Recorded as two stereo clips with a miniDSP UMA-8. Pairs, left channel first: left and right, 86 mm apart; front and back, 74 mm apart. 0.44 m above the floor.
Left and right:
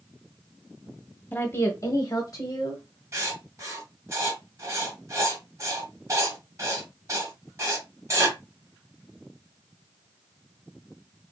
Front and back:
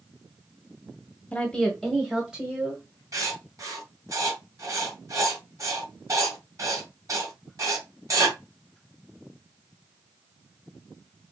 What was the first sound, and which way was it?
A woman speaking, 50° left.